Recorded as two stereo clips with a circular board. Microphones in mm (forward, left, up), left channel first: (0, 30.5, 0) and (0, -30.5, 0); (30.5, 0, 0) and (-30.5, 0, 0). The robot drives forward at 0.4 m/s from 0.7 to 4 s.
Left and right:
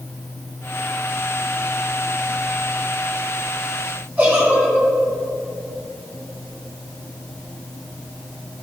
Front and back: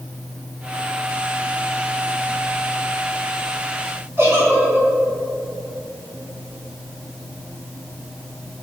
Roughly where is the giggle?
Behind right.